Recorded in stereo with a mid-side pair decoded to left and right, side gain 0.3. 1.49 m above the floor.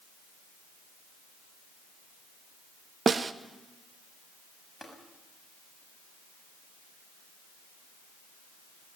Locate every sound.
3.1 s a snare drum: 50° right, 0.9 m
4.8 s tapping: 5° right, 6.5 m